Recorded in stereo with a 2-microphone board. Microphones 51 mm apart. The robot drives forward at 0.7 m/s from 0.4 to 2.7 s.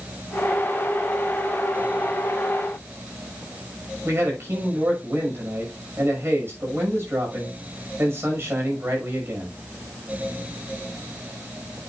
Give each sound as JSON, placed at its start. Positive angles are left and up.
{"t": 4.0, "sound": "a man speaking", "side_deg": -50, "distance_m": 6.0}